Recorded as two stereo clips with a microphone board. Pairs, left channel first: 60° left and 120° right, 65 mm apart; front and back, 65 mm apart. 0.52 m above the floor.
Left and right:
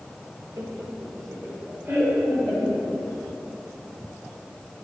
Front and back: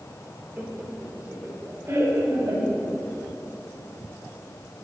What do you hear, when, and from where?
0.6 s laughter: 130° right, 1.4 m; by 2.9 s 175° left, 2.5 m